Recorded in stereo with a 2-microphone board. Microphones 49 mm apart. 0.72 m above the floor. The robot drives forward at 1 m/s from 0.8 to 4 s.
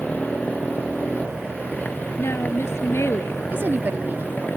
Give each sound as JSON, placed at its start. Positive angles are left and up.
{"t": 0.0, "sound": "a motorcycle", "side_deg": 35}
{"t": 2.2, "sound": "a woman speaking", "side_deg": 60}
{"t": 3.5, "sound": "a woman speaking", "side_deg": -50}